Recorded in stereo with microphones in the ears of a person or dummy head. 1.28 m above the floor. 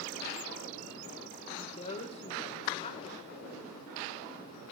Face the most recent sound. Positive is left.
turn(degrees=35)  # may be behind; listen again after turning